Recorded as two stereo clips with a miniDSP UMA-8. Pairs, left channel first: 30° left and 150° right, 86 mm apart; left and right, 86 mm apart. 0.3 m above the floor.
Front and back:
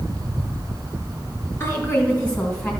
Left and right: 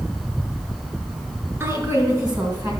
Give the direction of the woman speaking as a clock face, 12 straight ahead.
1 o'clock.